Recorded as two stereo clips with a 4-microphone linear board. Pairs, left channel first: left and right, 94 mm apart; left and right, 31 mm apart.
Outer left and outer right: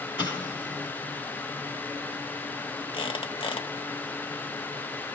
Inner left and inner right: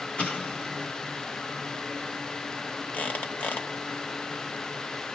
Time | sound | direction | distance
0.2 | an explosion | 50° left (ahead or behind) | 2 m
2.9 | a squeak | 65° left (ahead or behind) | 0.8 m